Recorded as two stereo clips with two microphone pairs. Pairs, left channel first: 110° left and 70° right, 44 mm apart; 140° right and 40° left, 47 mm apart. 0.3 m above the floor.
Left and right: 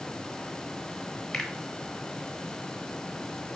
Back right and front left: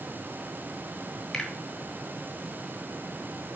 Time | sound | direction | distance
1.3 | a finger snap | 175° left | 1.0 m